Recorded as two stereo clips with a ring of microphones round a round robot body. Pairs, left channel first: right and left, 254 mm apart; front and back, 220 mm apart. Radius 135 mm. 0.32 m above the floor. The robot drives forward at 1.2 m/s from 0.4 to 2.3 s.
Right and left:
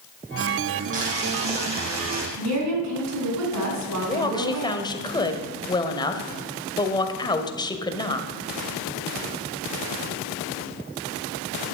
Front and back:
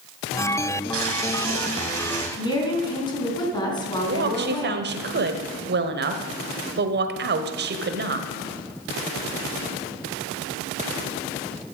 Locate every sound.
0.9 s boiling: 155° left, 4 m; by 2.3 s 160° left, 5.5 m
2.4 s a woman speaking: 70° left, 4 m
4.0 s a woman speaking: 160° right, 1.4 m